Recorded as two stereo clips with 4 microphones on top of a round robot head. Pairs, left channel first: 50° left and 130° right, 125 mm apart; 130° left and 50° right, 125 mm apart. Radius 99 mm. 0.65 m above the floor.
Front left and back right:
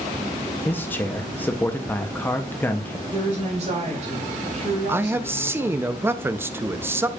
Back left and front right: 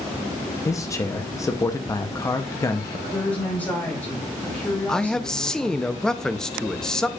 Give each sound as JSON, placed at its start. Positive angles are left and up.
{"t": 0.7, "sound": "a man speaking", "azimuth_deg": 105, "distance_m": 0.7}
{"t": 3.1, "sound": "a woman speaking", "azimuth_deg": -155, "distance_m": 4.0}
{"t": 4.9, "sound": "a man speaking", "azimuth_deg": -155, "distance_m": 0.6}